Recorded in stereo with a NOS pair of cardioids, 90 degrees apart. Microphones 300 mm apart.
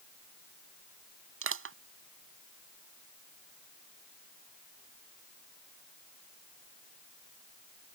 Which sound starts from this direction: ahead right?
Crushing, at 1.4 s.